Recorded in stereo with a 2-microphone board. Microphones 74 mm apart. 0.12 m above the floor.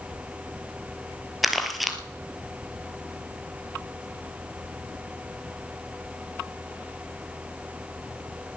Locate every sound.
1.4 s crumpling: centre (ahead or behind), 1.5 m